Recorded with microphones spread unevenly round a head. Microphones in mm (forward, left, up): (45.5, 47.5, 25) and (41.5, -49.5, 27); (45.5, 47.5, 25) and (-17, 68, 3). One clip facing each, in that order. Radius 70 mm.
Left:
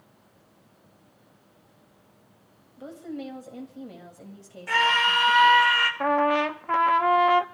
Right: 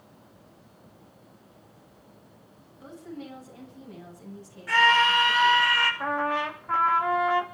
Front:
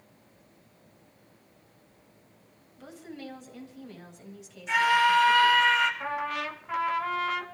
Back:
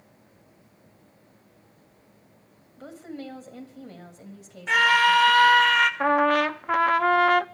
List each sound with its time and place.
2.8 s a woman speaking: 115° left, 7.5 m
4.7 s a scream: 145° left, 4 m
6.0 s a trumpet: 135° left, 1.0 m